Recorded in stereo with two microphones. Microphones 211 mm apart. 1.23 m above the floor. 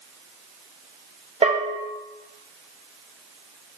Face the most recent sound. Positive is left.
turn(degrees=-25)  # may be behind; listen again after turning